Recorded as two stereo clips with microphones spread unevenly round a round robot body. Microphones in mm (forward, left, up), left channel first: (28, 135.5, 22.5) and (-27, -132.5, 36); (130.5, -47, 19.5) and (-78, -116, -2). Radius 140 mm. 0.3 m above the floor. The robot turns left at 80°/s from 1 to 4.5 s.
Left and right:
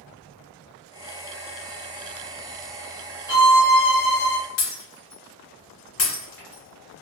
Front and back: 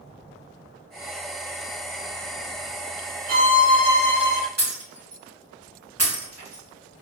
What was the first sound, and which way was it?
A violin, straight behind.